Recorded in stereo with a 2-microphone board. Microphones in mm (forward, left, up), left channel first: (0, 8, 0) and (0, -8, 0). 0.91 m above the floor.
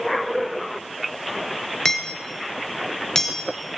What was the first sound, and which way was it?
Hammering, 30° left (ahead or behind).